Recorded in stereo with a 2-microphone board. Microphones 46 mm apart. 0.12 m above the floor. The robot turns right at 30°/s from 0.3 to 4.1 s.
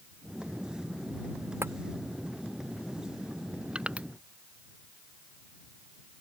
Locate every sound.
1.6 s tapping: 70° right (ahead or behind); by 1.7 s 65° right (ahead or behind)
3.8 s crushing: 25° right (ahead or behind); by 4.1 s 35° right (ahead or behind)